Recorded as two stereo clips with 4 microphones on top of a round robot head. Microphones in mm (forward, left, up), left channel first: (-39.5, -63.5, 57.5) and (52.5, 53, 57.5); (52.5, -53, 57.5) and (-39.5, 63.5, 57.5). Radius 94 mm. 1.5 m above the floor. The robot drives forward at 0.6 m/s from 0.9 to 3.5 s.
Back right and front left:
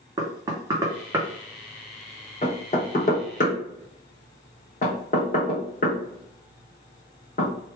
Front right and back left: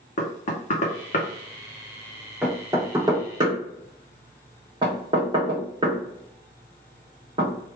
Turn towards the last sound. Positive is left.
turn(degrees=-170)